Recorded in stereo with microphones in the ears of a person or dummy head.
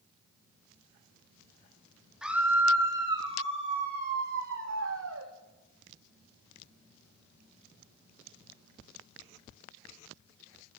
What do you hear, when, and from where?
2.2 s a scream: 5° right (ahead or behind), 3 m; by 5.3 s 75° right (ahead or behind), 3 m